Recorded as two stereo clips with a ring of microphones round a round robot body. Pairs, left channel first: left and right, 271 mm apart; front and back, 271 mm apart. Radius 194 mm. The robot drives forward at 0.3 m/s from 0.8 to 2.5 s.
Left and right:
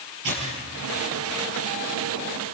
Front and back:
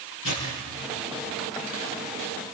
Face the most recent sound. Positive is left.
turn(degrees=-65)